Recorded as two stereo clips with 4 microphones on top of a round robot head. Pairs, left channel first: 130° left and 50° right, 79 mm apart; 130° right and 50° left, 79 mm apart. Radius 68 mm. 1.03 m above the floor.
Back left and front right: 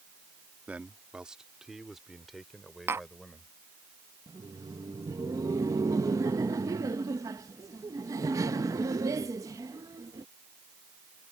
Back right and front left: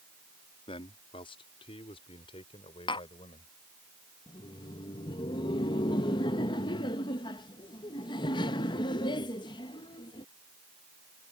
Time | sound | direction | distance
0.7 | a man speaking | 125° right | ?
2.9 | tapping | 110° right | ?
4.3 | laughter | 100° right | ?